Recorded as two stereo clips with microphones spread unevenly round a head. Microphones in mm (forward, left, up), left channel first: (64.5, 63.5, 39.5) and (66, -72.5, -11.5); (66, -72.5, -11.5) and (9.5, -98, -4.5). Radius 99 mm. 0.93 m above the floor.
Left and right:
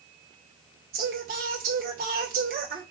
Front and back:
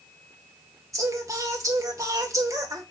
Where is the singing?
125° right, 2.0 m.